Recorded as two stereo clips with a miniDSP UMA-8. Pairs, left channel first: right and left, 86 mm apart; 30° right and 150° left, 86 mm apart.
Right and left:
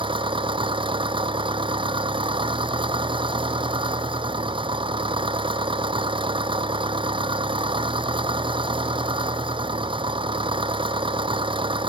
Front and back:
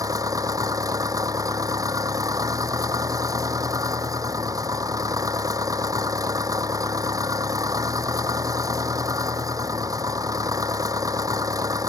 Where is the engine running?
100° left.